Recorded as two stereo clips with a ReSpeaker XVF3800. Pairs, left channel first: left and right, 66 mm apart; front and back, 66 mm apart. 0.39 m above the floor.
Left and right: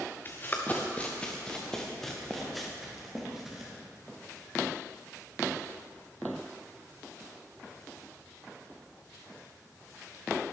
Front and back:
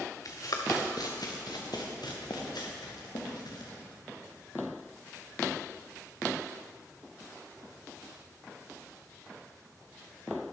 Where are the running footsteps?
35° left, 2.5 m; by 3.7 s 5° right, 4 m.